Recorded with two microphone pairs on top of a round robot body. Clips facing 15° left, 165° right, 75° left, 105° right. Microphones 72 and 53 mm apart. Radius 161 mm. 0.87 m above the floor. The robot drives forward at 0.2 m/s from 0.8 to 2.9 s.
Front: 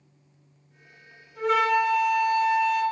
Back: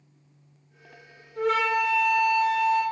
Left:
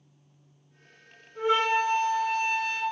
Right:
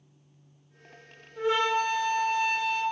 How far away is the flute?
About 1.9 m.